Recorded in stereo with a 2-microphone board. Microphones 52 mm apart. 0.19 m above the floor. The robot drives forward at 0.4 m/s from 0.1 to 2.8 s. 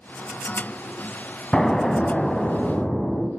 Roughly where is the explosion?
Centre.